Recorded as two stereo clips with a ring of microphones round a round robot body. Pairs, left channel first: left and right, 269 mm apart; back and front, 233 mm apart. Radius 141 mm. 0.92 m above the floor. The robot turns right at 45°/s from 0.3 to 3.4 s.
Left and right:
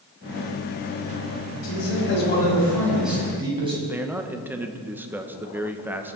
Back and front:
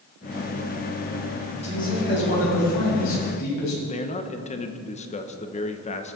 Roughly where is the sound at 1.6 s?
Behind left.